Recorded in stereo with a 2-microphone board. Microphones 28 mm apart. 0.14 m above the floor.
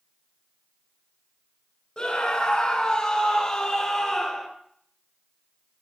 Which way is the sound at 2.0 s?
35° left (ahead or behind).